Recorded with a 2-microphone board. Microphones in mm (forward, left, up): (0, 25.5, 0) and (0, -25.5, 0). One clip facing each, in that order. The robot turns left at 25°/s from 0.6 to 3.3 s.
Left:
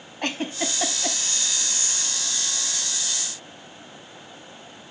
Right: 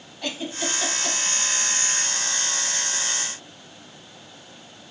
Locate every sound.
0.2 s a giggle: 45° left (ahead or behind), 0.8 m; by 1.2 s 35° left (ahead or behind), 0.8 m